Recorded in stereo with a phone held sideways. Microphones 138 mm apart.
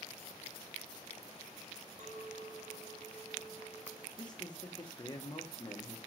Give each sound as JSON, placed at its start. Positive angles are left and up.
{"t": 2.0, "sound": "a clink", "side_deg": -60, "distance_m": 1.0}
{"t": 4.2, "sound": "a man speaking", "side_deg": 30, "distance_m": 0.9}